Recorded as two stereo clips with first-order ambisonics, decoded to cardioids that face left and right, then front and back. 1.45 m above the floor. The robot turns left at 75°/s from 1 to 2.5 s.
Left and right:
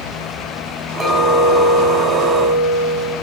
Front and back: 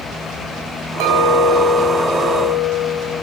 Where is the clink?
175° right, 3.5 m; by 3.1 s 75° left, 3.5 m.